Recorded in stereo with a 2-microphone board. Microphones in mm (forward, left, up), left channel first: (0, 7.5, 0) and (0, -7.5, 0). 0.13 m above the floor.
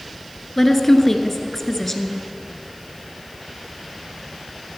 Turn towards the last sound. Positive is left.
turn(degrees=15)  # may be behind; listen again after turning